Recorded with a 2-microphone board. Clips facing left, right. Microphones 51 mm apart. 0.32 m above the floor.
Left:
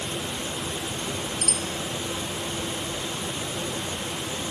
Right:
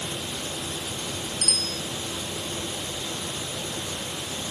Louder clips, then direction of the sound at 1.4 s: Left 1 dB; 20° left (ahead or behind).